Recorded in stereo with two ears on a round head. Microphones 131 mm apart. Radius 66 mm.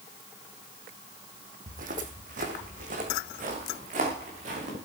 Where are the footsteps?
55° right (ahead or behind), 3 m; by 4.7 s 45° right (ahead or behind), 6.5 m.